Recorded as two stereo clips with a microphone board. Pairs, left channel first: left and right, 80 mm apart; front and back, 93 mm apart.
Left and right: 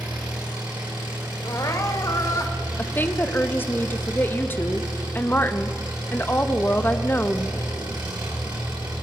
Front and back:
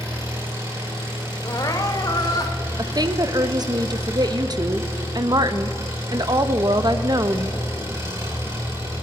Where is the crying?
45° left, 1.0 m.